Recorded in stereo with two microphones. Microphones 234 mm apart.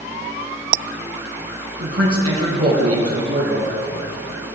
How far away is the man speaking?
About 3.5 m.